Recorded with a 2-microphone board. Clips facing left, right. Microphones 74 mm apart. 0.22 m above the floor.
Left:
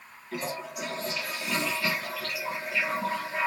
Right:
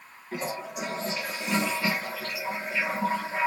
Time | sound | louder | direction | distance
0.3 | a toilet flushing | right 1 dB | 30° right (ahead or behind) | 3.5 m